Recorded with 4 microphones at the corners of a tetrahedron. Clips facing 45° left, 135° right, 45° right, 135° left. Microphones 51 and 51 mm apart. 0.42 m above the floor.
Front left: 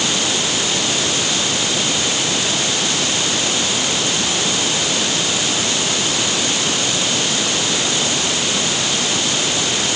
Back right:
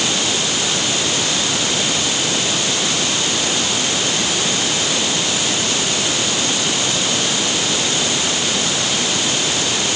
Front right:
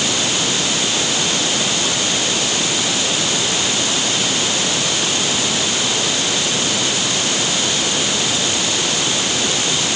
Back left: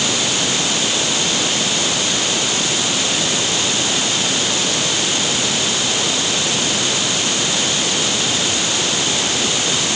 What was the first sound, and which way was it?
Only background noise.